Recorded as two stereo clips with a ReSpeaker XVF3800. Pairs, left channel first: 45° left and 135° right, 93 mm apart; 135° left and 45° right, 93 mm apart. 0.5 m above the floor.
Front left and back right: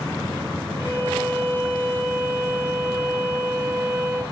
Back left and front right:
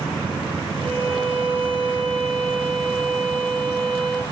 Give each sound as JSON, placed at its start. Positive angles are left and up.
{"t": 0.8, "sound": "a violin", "azimuth_deg": -70, "distance_m": 3.0}